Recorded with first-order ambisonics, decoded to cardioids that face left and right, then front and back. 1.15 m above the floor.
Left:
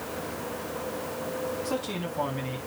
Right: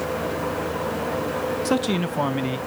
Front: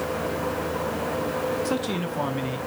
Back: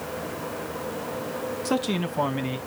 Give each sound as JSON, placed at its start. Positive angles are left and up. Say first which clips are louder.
{"t": 1.6, "sound": "a man speaking", "louder": "right 8 dB, even", "azimuth_deg": -105, "distance_m": 0.8}